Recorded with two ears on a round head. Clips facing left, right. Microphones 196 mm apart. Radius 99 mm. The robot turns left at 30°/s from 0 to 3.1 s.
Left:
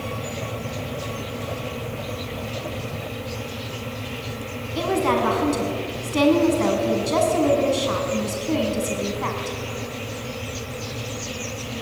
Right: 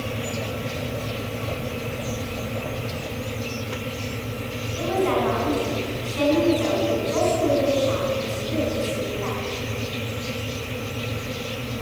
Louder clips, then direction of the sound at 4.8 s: Left 1 dB; 65° left (ahead or behind).